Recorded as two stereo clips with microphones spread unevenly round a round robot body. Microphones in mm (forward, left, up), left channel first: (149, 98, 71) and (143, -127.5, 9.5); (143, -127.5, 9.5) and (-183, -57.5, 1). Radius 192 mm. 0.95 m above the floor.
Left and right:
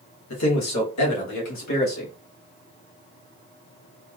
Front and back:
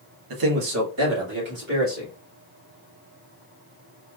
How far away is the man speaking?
About 1.1 m.